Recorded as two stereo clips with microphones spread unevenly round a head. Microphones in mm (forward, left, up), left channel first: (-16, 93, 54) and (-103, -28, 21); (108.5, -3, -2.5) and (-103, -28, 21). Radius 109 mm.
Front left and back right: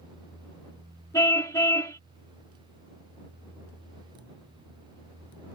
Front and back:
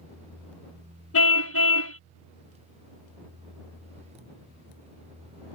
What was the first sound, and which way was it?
A car horn, 20° right.